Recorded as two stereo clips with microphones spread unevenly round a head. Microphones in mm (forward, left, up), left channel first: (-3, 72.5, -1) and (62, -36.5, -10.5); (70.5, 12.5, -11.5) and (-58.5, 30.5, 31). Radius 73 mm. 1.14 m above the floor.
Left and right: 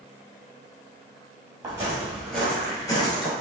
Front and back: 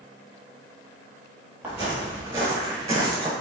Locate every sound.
1.6 s footsteps: 125° right, 1.7 m; by 3.3 s 150° left, 1.5 m